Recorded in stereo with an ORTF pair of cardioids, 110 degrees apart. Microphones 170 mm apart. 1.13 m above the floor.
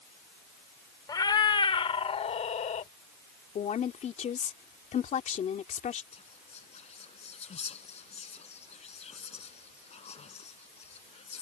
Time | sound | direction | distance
1.1 | a cat meowing | 25° left | ?
3.5 | a woman speaking | 45° left | ?
6.1 | whispering | 40° left | ?